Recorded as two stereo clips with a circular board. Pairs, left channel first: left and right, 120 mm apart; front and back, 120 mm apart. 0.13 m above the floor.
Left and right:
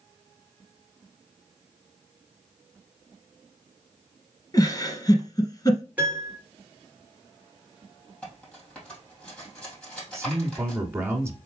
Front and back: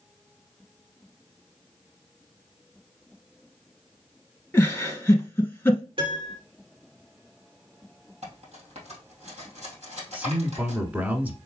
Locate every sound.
4.5 s a giggle: 60° left, 1.1 m
6.0 s a piano: 165° right, 2 m
8.2 s cutlery clinking: 170° left, 2.5 m
10.1 s a man speaking: 130° right, 1.2 m